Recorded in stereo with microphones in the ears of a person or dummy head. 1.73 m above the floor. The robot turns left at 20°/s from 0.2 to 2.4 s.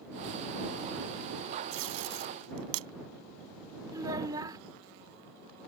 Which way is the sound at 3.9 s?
20° right (ahead or behind).